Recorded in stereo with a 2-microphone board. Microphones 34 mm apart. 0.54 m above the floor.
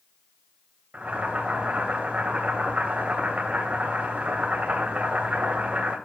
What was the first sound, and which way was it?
Boiling, 50° right (ahead or behind).